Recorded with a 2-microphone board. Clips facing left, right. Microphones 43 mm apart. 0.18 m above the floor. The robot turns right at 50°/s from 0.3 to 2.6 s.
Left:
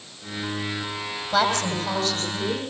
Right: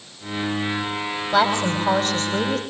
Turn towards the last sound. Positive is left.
turn(degrees=-105)